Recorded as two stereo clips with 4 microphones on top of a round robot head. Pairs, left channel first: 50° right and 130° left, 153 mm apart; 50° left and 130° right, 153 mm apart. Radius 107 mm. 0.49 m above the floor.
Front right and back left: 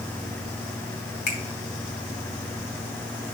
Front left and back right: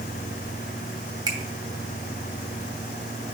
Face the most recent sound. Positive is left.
turn(degrees=-65)